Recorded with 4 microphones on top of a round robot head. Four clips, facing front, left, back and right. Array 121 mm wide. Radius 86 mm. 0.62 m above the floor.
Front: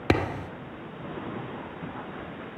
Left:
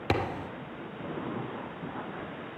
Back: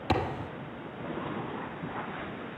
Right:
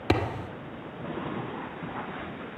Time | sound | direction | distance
0.1 | a thud | 5° right | 1.4 m